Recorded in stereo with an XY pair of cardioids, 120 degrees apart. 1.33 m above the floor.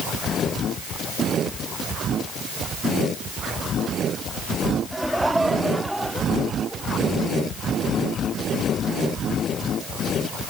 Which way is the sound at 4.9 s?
5° right.